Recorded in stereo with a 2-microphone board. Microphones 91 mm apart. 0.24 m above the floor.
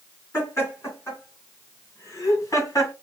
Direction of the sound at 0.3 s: 30° left (ahead or behind).